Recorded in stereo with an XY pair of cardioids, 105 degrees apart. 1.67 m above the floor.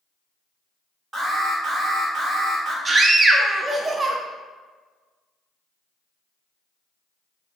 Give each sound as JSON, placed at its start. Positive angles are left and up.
{"t": 1.1, "sound": "an alarm", "azimuth_deg": -40, "distance_m": 1.8}
{"t": 2.9, "sound": "a scream", "azimuth_deg": -30, "distance_m": 0.6}